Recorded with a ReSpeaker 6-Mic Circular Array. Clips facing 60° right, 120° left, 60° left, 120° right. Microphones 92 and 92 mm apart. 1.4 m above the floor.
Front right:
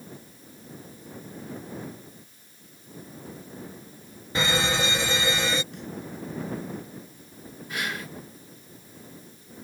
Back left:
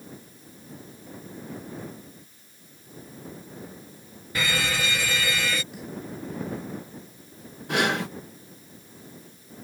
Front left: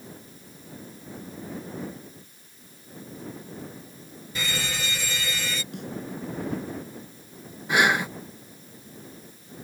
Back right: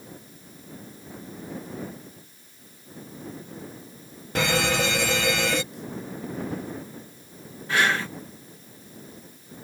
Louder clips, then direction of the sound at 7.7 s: Back left 8 dB, front left 2 dB; 135° left.